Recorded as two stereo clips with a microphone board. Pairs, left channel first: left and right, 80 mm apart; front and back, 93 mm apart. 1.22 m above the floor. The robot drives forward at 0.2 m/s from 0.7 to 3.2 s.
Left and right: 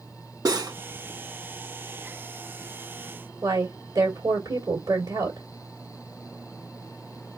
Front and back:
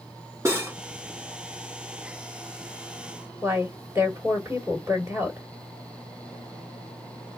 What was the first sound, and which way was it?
Cutlery clinking, 120° right.